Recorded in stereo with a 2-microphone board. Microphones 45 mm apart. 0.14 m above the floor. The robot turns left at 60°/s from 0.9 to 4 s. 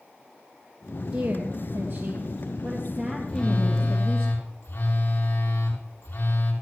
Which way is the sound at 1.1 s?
70° right.